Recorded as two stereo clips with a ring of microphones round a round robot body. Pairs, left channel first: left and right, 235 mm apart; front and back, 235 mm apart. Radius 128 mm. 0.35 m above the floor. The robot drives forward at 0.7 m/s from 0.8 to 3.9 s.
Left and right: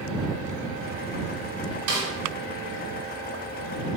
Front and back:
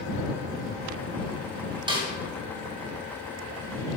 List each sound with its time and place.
1.9 s a snare drum: 110° right, 1.8 m; by 2.1 s 115° right, 1.9 m